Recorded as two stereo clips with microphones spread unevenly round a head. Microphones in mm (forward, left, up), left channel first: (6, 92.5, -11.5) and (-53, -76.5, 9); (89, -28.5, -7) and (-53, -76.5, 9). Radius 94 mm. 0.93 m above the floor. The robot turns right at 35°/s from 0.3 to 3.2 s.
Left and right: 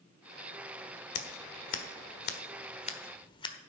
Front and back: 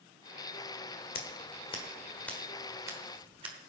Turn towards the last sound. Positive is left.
turn(degrees=135)